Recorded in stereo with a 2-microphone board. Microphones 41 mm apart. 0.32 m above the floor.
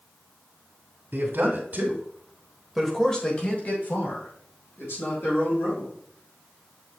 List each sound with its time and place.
1.1 s a man speaking: 60° right (ahead or behind), 2 m; by 5.9 s 75° left (ahead or behind), 4 m